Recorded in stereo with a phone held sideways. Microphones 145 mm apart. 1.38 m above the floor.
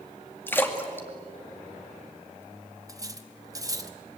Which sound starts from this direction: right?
Cutlery clinking, at 2.9 s.